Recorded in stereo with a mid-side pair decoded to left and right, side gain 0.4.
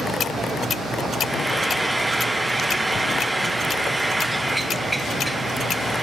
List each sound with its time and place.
1.2 s frying: 15° right, 1.1 m